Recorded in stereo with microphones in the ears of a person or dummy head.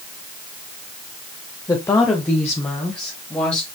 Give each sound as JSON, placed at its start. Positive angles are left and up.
{"t": 1.7, "sound": "a woman speaking", "side_deg": 15, "distance_m": 0.9}